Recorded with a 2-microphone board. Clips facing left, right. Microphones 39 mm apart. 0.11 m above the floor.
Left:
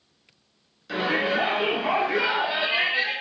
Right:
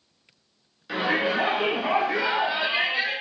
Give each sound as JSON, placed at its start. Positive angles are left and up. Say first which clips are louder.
{"t": 0.9, "sound": "a shout", "louder": "even", "side_deg": -15, "distance_m": 1.2}